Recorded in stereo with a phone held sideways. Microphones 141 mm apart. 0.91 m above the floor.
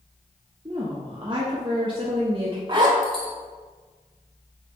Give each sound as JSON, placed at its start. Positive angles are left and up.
{"t": 0.7, "sound": "a woman speaking", "side_deg": -35, "distance_m": 1.0}
{"t": 2.7, "sound": "a zipper", "side_deg": -35, "distance_m": 1.3}